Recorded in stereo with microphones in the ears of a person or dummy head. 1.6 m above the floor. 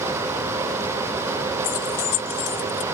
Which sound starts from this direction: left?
Keys jangling, at 1.6 s.